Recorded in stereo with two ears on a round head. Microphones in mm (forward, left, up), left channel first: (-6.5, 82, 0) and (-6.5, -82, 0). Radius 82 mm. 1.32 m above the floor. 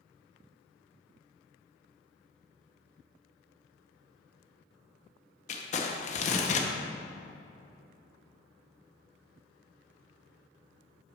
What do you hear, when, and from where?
5.5 s crumpling: 40° left (ahead or behind), 0.8 m